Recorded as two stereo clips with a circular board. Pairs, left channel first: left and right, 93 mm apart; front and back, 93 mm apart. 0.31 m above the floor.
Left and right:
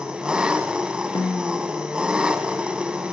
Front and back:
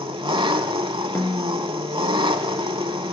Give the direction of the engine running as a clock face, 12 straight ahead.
6 o'clock.